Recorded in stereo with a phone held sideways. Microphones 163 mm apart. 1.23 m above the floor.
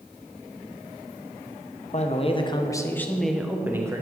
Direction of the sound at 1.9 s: 45° left (ahead or behind).